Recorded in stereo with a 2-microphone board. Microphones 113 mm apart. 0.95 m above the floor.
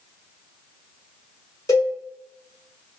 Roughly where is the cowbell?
Left.